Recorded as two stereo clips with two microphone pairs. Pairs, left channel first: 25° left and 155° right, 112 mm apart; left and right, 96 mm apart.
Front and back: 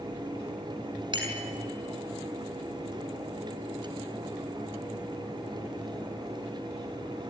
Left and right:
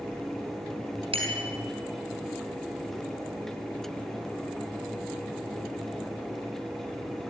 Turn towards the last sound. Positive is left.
turn(degrees=-110)